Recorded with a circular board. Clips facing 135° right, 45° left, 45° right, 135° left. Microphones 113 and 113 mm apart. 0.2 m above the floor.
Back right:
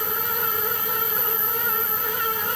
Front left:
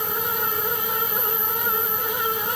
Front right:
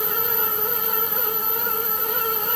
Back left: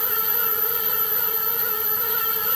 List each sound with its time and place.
Only background noise.